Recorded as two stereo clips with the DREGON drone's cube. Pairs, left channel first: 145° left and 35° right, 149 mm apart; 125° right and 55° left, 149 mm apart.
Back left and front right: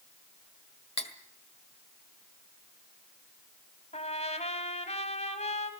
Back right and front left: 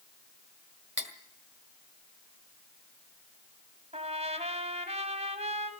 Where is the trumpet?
100° left, 1.9 m.